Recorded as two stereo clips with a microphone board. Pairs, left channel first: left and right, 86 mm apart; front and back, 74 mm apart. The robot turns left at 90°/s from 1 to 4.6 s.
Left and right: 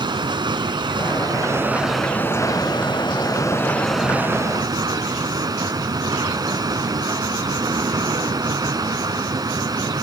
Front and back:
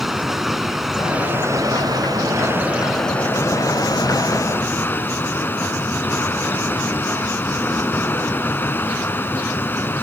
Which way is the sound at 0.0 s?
95° right.